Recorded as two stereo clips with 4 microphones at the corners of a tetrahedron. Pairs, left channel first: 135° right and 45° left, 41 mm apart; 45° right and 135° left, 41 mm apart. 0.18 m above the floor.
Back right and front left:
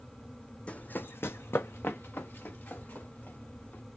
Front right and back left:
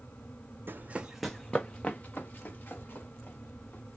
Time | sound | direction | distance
0.7 | running footsteps | 165° left | 0.6 m